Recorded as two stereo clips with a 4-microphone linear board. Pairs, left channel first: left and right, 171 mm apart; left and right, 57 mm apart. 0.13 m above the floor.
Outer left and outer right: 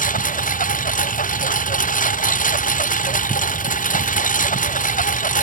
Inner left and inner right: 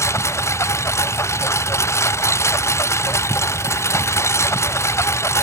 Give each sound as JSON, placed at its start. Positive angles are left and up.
{"t": 0.0, "sound": "a lawn mower", "side_deg": 50}